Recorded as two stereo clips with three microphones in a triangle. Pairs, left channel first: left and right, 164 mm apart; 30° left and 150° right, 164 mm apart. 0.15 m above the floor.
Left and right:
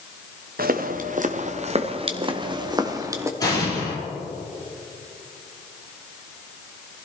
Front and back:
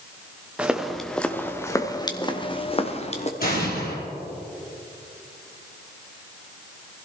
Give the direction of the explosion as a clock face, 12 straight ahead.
11 o'clock.